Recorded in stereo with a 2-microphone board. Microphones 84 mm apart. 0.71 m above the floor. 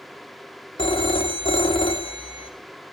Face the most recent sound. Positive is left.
turn(degrees=80)